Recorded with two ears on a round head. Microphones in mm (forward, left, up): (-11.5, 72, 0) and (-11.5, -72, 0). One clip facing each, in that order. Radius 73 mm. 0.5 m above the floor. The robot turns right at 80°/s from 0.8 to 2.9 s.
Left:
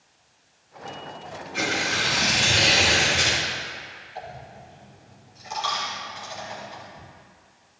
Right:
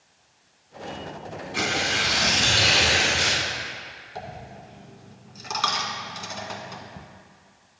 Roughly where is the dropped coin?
Right.